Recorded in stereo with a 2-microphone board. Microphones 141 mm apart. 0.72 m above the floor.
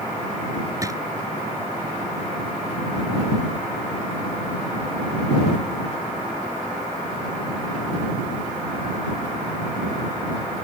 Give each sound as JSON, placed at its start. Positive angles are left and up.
{"t": 0.8, "sound": "a drawer", "side_deg": -25}